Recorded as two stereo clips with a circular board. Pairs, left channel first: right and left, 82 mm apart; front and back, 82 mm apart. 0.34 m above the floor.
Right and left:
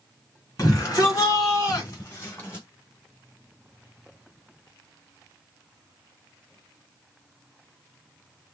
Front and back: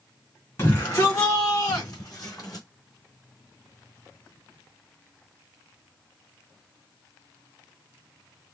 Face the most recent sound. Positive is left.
turn(degrees=-30)